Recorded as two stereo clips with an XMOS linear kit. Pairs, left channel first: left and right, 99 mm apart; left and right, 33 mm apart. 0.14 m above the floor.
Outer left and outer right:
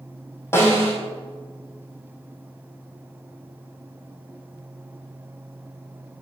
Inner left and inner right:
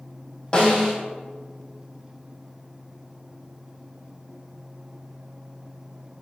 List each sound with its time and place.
0.5 s a snare drum: 25° left (ahead or behind), 3 m